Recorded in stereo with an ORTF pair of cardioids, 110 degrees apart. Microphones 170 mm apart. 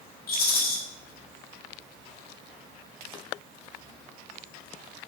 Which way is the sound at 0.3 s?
65° left.